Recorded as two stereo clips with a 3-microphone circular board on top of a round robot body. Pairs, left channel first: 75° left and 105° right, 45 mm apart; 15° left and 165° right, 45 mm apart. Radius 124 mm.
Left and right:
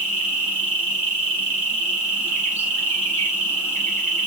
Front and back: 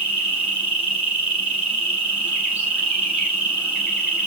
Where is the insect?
130° left, 0.7 m.